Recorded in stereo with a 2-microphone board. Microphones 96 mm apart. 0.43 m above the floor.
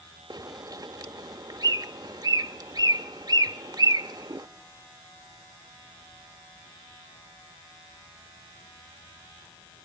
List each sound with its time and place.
0.3 s a bird: 45° right (ahead or behind), 0.7 m